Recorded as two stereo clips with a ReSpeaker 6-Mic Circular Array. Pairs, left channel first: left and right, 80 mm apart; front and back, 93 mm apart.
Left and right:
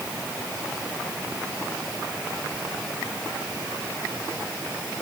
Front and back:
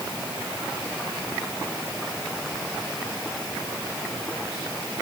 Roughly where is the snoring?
I don't hear snoring.